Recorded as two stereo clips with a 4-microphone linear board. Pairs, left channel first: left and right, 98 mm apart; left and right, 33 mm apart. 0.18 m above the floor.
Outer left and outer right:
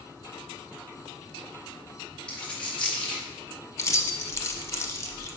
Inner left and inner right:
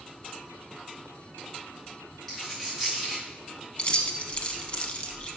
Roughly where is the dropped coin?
Centre.